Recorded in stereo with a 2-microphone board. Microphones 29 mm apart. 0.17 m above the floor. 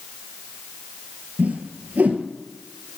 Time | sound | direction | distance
1.4 | a whoosh | 75° right (ahead or behind) | 1.0 m